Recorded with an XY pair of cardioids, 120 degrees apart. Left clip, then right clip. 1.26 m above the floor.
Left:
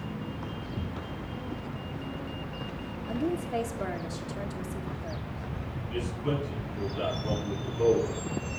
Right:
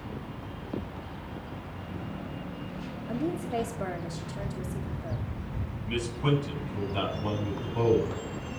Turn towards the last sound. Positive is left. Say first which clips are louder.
# right 3 dB
turn(degrees=-65)